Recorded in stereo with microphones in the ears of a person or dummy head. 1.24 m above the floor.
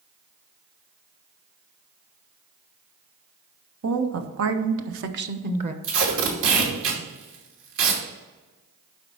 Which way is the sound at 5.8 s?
65° right (ahead or behind).